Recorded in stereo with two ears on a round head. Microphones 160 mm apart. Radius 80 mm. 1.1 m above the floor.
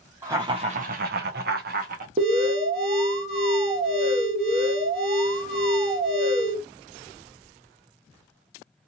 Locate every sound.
0.2 s laughter: 15° right (ahead or behind), 0.6 m; by 2.1 s 50° right (ahead or behind), 0.9 m
2.2 s an alarm: 30° right (ahead or behind), 0.9 m